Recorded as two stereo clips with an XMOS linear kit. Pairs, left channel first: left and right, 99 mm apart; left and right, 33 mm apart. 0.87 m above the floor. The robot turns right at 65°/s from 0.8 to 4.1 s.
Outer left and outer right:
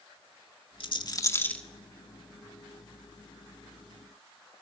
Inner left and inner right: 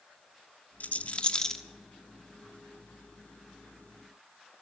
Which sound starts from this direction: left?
A rattle, at 0.8 s.